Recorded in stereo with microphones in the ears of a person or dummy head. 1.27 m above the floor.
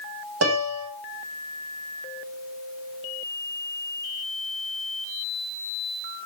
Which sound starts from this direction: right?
A piano, at 0.4 s.